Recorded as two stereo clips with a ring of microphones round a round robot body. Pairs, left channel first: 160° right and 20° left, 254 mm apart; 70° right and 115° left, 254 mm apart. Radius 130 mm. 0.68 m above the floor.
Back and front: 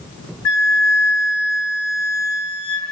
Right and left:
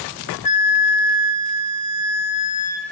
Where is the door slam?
No door slam in this recording.